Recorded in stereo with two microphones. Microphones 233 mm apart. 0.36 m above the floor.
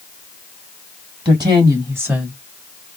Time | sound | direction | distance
1.2 | a woman speaking | 20° right (ahead or behind) | 3 m